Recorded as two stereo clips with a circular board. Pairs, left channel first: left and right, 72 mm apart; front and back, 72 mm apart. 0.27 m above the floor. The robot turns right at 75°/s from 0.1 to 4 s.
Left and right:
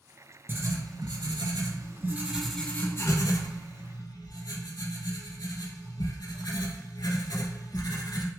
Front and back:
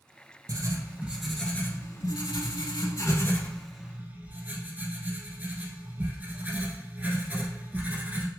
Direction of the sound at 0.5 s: 150° right.